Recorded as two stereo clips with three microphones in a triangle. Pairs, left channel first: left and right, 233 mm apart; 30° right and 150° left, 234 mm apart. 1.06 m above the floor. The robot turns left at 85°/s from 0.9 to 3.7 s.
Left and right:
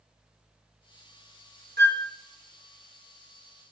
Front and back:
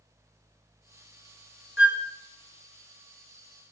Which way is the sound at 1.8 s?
50° right.